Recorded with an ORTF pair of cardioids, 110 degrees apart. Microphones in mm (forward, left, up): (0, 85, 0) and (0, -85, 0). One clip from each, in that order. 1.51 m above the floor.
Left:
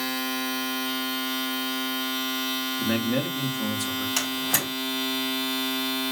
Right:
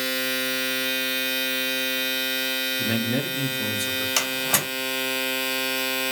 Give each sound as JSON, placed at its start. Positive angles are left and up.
{"t": 0.0, "sound": "a machine running", "azimuth_deg": -45, "distance_m": 1.0}
{"t": 2.8, "sound": "a man speaking", "azimuth_deg": -5, "distance_m": 0.8}
{"t": 4.2, "sound": "a door slam", "azimuth_deg": -25, "distance_m": 1.8}